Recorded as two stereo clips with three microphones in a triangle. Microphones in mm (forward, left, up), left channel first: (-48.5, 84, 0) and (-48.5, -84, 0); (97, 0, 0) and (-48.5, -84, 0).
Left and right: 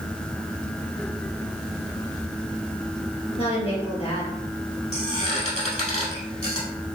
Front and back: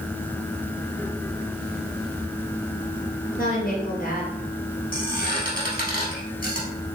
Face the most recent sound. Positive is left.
turn(degrees=45)